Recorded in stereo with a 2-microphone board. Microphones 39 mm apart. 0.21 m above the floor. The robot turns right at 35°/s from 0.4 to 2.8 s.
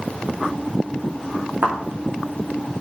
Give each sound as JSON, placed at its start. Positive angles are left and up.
{"t": 1.6, "sound": "a thud", "side_deg": -60, "distance_m": 4.5}